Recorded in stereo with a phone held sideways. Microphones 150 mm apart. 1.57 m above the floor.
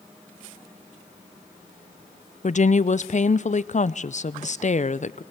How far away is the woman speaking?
About 0.5 m.